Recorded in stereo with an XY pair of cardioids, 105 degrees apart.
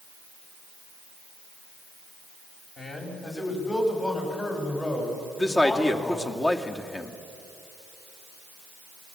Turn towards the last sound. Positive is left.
turn(degrees=25)